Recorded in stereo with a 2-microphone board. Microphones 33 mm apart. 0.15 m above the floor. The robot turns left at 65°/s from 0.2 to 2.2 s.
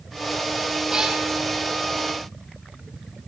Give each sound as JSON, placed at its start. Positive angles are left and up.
{"t": 0.9, "sound": "a cat meowing", "side_deg": -25, "distance_m": 1.9}